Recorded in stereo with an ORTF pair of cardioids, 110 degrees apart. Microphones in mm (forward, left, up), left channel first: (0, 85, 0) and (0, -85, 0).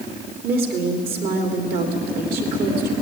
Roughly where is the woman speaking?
Ahead right.